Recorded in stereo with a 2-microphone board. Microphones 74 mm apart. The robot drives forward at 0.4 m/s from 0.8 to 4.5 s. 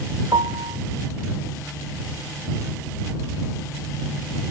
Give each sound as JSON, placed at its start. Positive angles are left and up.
{"t": 0.3, "sound": "a piano", "side_deg": -80, "distance_m": 1.0}